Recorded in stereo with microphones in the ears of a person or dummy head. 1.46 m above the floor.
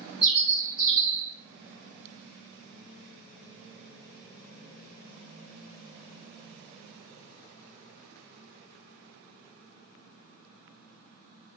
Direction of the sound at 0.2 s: 20° left (ahead or behind).